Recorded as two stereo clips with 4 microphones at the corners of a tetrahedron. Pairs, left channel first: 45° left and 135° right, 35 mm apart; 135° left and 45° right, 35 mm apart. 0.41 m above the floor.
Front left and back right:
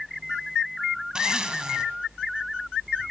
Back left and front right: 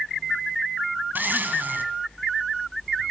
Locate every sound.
1.1 s a zipper: 65° right, 2.5 m